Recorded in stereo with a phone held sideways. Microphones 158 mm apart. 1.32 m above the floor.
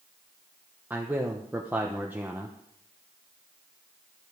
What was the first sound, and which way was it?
A man speaking, 10° right (ahead or behind).